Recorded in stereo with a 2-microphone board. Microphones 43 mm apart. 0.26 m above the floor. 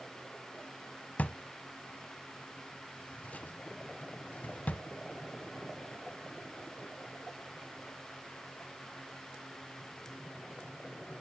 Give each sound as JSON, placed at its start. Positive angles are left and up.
{"t": 1.2, "sound": "a drawer", "side_deg": 40, "distance_m": 0.5}